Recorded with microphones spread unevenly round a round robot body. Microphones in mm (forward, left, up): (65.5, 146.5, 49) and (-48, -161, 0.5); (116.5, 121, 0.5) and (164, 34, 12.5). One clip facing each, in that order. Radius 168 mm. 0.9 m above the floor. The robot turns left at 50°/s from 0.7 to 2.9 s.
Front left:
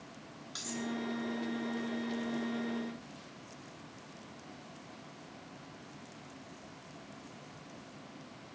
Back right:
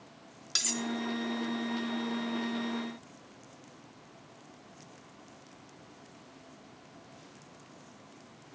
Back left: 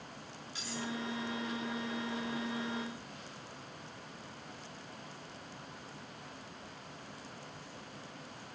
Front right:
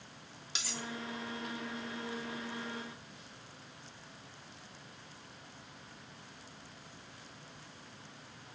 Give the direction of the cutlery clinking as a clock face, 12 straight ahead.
2 o'clock.